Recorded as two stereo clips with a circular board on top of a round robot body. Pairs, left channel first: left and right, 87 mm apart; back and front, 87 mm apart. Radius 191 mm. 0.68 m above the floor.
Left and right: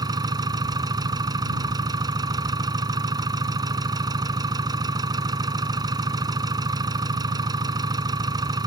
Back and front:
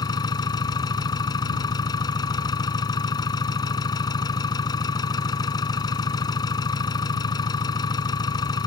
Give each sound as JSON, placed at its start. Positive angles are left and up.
{"t": 0.0, "sound": "an engine running", "azimuth_deg": -135}